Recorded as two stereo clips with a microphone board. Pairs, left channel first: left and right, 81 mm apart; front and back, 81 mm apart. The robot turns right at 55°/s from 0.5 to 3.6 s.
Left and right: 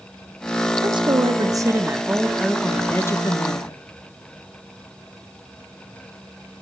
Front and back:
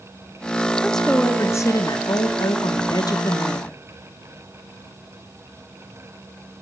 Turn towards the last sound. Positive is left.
turn(degrees=65)